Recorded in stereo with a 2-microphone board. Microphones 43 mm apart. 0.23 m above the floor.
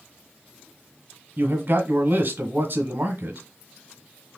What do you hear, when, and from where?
1.4 s a man speaking: 45° right (ahead or behind), 1.5 m